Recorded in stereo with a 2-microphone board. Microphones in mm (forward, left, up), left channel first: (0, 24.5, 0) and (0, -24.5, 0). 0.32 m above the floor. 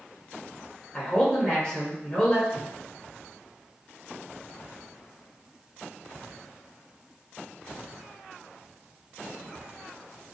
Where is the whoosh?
15° right (ahead or behind), 1.3 m.